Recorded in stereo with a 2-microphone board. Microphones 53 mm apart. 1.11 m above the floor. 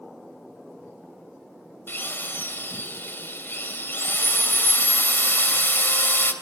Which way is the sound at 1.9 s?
40° left (ahead or behind).